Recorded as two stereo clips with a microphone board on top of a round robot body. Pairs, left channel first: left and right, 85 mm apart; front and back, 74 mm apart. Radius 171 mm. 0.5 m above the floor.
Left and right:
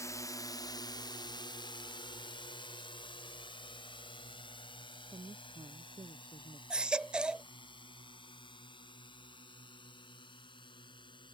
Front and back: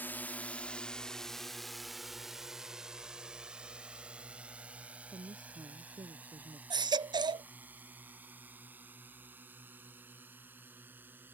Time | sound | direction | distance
0.0 | a drone | 55° left | ?
5.1 | a woman speaking | 140° right | ?
6.7 | a baby crying | 170° right | ?